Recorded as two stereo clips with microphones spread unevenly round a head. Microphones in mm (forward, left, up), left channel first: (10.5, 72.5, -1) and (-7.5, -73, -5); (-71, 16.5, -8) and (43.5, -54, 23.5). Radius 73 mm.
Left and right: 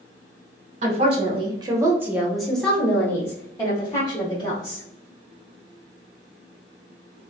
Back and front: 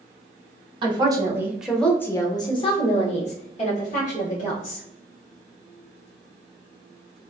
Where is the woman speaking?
85° right, 0.9 m; by 4.8 s 145° left, 2 m.